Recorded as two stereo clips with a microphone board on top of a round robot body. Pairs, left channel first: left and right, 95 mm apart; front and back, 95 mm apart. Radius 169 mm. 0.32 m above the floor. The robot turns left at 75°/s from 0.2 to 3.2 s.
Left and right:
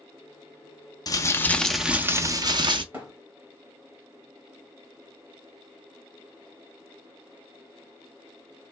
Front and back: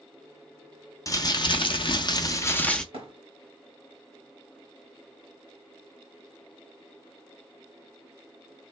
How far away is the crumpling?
About 1.0 m.